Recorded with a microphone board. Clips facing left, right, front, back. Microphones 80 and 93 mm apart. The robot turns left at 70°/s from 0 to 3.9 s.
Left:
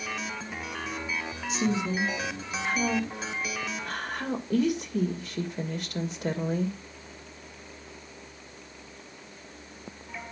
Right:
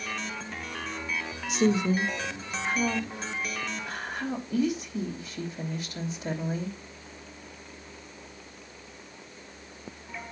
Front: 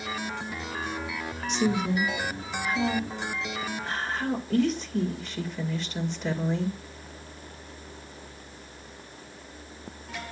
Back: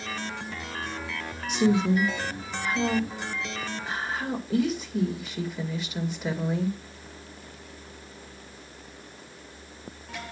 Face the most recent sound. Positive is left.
turn(degrees=95)